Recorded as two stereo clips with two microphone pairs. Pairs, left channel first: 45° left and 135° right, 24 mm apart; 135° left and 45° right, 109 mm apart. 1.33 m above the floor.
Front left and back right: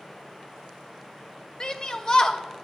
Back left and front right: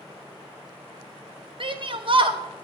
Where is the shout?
10° right, 0.6 m.